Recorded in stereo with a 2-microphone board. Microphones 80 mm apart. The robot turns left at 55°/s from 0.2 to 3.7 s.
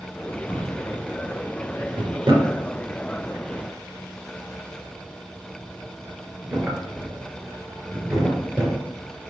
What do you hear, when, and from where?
0.5 s a drawer: 5° left (ahead or behind), 2.5 m; by 8.8 s 10° right (ahead or behind), 2.5 m